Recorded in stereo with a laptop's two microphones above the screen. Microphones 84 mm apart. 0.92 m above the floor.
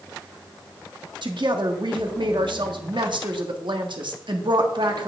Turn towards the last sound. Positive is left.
turn(degrees=-70)  # may be behind; listen again after turning